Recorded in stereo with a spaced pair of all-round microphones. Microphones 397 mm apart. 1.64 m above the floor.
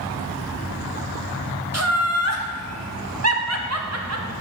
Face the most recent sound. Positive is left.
turn(degrees=-40)  # may be behind; listen again after turning